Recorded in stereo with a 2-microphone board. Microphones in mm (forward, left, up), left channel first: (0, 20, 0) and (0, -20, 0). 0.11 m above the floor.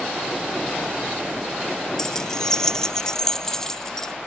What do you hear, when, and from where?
2.0 s keys jangling: 20° left (ahead or behind); by 4.1 s 15° left (ahead or behind)